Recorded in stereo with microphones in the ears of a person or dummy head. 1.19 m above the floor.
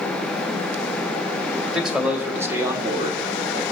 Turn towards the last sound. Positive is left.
turn(degrees=-35)  # may be behind; listen again after turning